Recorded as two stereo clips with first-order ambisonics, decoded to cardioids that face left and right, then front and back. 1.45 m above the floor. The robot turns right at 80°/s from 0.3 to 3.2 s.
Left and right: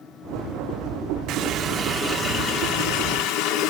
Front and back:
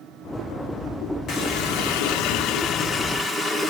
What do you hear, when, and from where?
1.3 s a running tap: 60° right, 2 m; by 3.7 s 95° left, 2 m